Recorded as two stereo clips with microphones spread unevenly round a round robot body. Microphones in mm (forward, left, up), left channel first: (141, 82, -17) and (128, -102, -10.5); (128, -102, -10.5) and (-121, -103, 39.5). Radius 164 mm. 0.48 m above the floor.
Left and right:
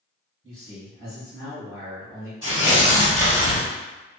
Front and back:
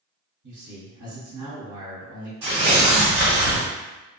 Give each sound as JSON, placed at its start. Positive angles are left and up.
{"t": 0.4, "sound": "a man speaking", "azimuth_deg": 170, "distance_m": 1.6}
{"t": 2.4, "sound": "tearing paper", "azimuth_deg": 160, "distance_m": 1.8}